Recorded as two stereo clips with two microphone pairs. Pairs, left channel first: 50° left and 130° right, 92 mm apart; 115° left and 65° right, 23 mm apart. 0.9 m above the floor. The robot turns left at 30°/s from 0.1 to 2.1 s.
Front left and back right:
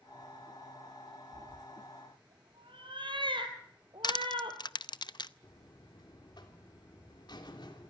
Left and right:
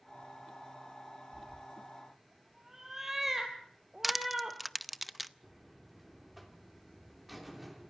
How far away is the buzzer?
About 3 m.